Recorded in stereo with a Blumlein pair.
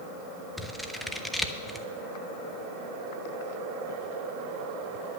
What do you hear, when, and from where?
0.6 s scissors: straight ahead, 0.8 m